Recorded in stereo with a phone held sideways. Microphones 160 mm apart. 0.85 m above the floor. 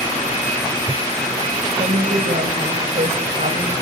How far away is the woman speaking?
About 4 m.